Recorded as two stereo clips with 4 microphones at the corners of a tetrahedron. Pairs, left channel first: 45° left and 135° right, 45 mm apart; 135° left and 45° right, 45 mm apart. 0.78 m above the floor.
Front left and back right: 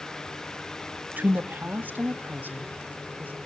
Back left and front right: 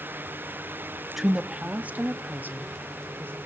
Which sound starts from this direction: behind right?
A woman speaking, at 1.2 s.